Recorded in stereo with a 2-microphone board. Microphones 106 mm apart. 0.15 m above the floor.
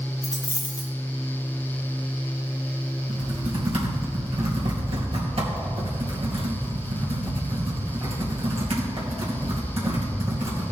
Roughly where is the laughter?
No laughter in this recording.